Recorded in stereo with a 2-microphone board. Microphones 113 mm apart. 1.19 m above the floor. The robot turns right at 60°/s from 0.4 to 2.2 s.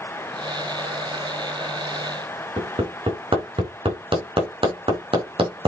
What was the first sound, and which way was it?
Hammering, 50° right (ahead or behind).